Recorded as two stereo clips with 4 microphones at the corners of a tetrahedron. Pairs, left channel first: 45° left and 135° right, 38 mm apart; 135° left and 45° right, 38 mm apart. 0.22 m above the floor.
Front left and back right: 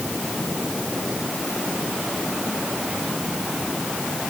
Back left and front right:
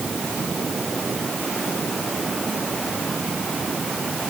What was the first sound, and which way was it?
Only background noise.